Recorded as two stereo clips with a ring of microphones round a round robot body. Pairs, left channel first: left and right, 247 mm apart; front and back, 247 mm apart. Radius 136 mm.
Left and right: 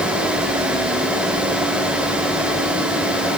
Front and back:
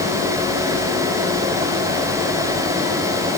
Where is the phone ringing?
I don't hear a phone ringing.